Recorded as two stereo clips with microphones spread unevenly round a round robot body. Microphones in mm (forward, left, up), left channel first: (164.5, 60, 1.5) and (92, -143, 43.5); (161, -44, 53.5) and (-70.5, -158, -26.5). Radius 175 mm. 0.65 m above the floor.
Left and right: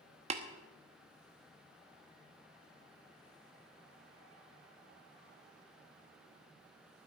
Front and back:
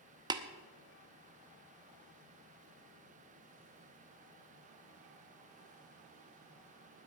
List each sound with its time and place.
0.3 s tapping: 170° right, 0.9 m